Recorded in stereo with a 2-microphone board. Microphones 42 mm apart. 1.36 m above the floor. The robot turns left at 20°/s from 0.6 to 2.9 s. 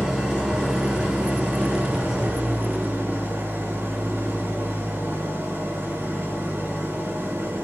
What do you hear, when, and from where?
0.0 s an engine running: 20° right, 3.5 m; by 7.6 s 65° right, 3.5 m